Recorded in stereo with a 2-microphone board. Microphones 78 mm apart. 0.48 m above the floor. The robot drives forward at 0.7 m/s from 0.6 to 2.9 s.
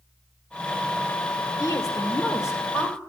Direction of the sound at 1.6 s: 50° left (ahead or behind).